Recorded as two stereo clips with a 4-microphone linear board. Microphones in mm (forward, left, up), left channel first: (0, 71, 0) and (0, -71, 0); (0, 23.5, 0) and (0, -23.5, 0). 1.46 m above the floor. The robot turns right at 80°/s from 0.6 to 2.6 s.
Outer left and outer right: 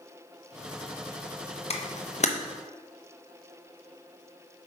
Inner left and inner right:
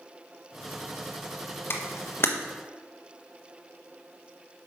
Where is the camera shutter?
50° left (ahead or behind), 0.9 m.